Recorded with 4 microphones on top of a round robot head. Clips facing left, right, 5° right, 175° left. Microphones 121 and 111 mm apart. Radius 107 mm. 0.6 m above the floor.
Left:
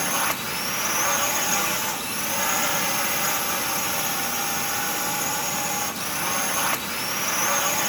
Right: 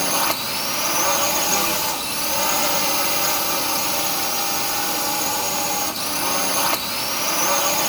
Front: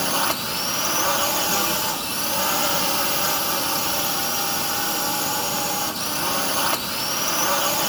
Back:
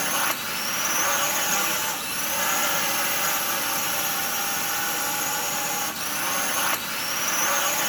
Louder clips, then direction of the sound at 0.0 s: Right 4 dB, front 4 dB; 50° right.